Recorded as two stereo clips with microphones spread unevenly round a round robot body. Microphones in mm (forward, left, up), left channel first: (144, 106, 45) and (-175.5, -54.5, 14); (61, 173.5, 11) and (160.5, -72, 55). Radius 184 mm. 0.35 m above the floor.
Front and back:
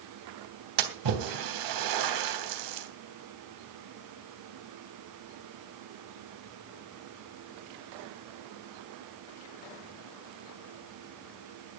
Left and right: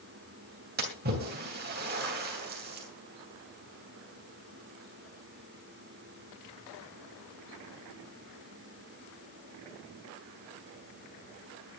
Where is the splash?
130° right, 3 m.